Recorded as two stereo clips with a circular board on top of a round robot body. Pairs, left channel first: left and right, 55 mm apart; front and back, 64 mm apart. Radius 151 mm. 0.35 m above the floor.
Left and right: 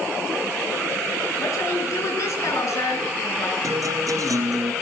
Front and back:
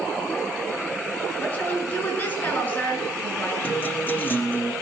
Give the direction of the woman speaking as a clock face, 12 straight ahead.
10 o'clock.